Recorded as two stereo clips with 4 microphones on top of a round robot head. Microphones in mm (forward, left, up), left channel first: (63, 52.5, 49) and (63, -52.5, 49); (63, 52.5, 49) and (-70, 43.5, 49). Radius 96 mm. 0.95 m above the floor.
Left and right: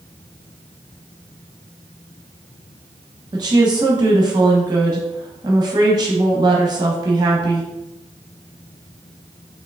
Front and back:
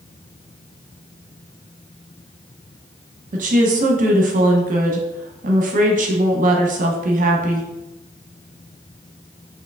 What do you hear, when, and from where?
3.3 s a woman speaking: 150° right, 0.7 m